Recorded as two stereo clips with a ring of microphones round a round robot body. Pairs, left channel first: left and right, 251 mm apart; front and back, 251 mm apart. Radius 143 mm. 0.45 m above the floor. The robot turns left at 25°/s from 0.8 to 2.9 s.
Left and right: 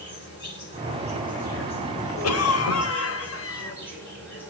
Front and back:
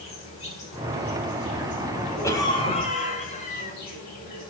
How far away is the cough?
About 2 m.